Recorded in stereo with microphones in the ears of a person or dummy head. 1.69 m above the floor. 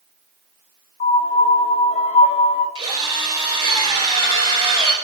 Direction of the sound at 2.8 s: 25° right (ahead or behind).